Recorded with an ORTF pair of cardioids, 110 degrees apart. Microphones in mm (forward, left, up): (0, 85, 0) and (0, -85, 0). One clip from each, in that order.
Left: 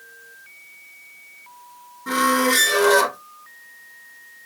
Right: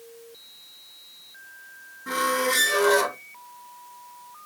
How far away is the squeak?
About 0.6 m.